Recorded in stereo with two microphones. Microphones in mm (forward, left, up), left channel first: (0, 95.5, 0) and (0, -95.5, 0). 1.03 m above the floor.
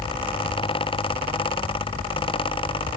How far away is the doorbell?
No doorbell in this recording.